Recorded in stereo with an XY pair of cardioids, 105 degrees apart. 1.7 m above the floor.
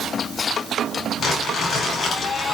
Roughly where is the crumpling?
Ahead left.